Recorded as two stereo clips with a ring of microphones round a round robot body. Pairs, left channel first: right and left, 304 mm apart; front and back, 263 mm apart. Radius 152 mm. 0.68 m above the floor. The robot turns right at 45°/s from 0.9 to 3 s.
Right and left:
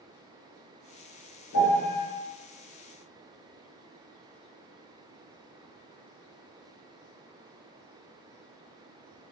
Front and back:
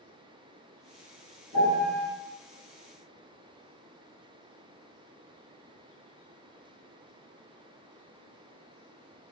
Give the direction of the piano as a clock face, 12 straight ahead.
5 o'clock.